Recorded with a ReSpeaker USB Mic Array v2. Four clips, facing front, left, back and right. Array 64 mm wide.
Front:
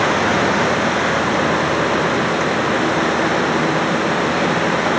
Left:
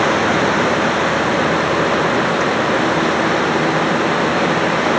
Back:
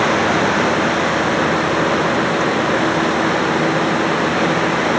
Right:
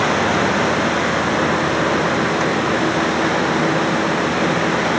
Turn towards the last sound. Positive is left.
No sound to turn to.